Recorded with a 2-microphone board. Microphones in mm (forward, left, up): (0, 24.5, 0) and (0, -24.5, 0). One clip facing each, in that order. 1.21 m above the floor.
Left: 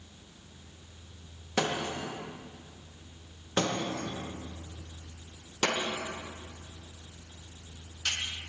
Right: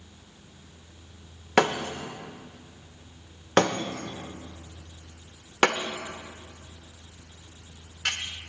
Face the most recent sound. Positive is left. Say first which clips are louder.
# right 7 dB
turn(degrees=-70)  # may be behind; listen again after turning